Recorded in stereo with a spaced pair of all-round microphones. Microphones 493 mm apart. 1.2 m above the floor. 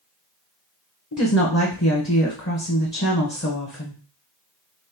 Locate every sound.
1.1 s a woman speaking: 30° left (ahead or behind), 1.0 m